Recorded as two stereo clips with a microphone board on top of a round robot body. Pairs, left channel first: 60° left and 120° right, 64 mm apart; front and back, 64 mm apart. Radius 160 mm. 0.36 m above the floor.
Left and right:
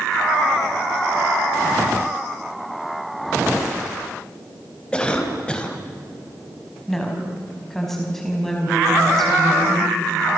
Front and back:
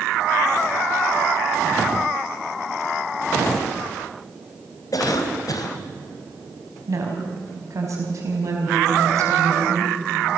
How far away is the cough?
About 3 m.